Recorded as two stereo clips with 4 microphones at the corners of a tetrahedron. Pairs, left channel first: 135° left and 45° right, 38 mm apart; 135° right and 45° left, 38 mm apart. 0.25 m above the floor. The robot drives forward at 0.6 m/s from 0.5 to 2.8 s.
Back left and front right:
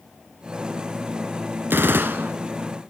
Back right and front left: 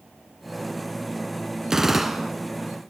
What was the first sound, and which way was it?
A gunshot, 30° right.